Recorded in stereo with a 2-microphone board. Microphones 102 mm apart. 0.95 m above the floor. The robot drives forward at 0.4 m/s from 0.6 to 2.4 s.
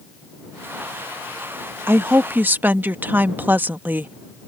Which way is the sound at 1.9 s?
25° right (ahead or behind).